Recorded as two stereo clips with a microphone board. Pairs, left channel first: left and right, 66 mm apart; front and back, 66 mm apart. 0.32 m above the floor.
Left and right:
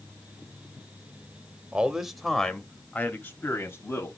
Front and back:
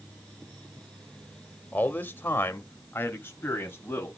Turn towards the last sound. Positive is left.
turn(degrees=50)